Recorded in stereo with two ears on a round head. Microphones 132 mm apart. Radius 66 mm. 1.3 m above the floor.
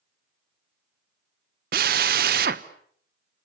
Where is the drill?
65° right (ahead or behind), 1.0 m.